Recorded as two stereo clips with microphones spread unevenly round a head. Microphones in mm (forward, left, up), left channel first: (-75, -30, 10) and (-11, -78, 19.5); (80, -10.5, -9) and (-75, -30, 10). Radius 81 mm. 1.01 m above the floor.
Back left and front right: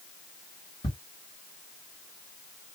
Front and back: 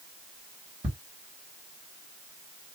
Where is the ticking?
125° left, 1.6 m.